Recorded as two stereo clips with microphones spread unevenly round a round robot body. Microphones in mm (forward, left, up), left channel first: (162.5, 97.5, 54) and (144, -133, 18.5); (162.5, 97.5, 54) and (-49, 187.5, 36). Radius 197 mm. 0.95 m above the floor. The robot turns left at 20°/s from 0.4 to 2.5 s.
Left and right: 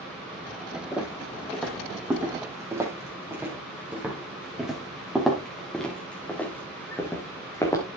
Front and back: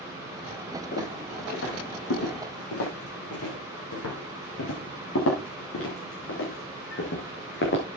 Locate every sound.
0.9 s footsteps: 10° left, 7.5 m